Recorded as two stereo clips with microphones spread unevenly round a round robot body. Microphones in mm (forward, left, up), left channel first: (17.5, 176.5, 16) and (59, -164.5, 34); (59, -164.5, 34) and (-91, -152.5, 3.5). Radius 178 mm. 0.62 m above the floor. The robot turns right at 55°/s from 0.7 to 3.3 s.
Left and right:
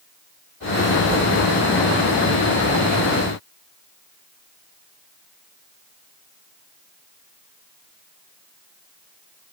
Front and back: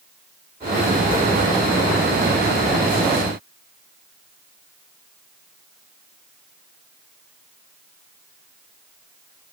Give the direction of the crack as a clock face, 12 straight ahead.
I don't hear a crack.